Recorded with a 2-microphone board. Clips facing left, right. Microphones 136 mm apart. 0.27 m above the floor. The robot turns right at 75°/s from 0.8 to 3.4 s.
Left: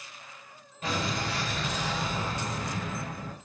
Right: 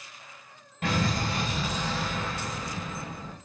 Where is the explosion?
70° right, 1.0 m; by 3.4 s 120° left, 1.0 m.